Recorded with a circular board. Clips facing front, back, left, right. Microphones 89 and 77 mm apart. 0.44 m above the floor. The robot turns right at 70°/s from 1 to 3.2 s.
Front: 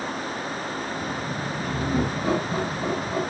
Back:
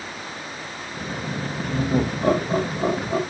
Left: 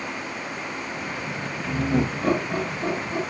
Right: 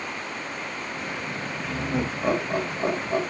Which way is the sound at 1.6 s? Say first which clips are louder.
Back 3 dB, left 5 dB; 145° left.